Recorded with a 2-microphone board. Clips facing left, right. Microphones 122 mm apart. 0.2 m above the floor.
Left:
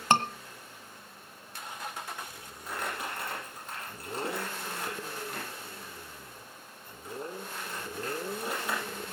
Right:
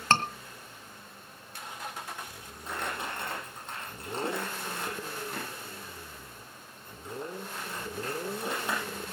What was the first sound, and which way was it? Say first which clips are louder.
A scream: left 1 dB; 15° left (ahead or behind).